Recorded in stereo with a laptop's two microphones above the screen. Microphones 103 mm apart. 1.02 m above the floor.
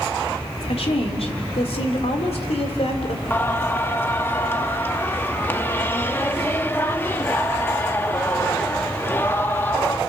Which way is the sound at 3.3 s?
20° left (ahead or behind).